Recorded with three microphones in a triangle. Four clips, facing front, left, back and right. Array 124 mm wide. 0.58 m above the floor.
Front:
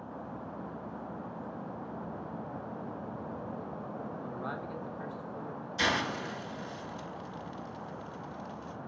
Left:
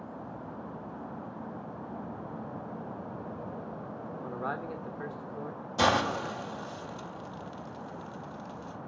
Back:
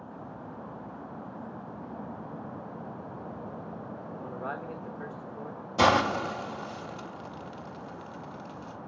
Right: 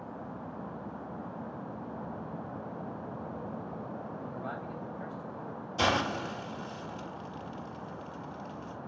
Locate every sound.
4.2 s a man speaking: 100° left, 1.1 m
5.8 s a hiss: 170° left, 0.7 m